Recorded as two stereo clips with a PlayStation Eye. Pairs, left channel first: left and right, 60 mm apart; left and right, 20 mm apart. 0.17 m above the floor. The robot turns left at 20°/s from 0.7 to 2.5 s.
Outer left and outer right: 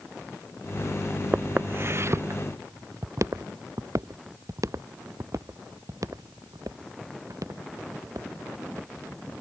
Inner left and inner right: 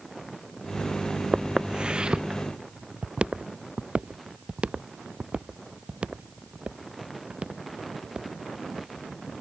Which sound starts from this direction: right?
Footsteps, at 1.3 s.